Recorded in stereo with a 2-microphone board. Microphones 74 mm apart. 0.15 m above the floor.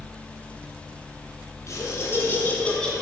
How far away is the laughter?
About 2.5 m.